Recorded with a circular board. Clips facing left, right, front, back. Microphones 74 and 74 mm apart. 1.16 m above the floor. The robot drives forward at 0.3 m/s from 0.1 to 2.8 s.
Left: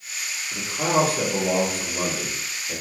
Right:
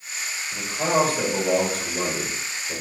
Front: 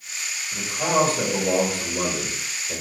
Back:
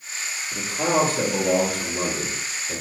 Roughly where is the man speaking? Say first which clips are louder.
Even, even; behind left.